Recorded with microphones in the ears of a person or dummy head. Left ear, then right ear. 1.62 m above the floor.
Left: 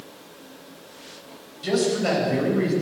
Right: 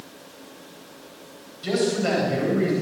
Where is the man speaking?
5° left (ahead or behind), 9.5 m; by 2.7 s centre (ahead or behind), 10.5 m.